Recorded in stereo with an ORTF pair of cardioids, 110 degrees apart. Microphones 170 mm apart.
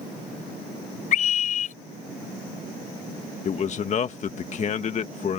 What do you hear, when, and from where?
1.1 s a scream: 50° left
3.5 s a man speaking: 45° left